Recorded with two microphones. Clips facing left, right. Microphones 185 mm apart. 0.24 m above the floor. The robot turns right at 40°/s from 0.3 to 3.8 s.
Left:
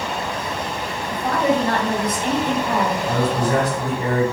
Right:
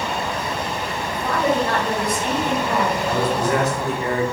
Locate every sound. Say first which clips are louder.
1.1 s a woman speaking: left 2 dB; 100° left, 1.3 m; by 3.0 s 175° left, 1.3 m
3.1 s a man speaking: even; 25° left (ahead or behind), 1.3 m; by 4.2 s 40° left (ahead or behind), 1.3 m